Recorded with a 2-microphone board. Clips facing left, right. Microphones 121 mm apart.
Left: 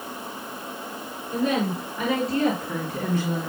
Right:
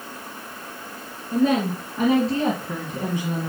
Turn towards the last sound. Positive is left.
turn(degrees=-5)  # may be behind; listen again after turning